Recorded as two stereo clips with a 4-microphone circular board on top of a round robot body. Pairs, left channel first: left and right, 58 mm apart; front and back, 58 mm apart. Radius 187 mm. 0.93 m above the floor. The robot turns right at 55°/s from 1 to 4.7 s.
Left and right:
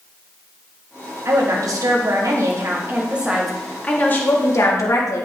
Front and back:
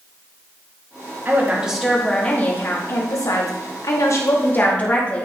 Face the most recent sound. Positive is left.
turn(degrees=65)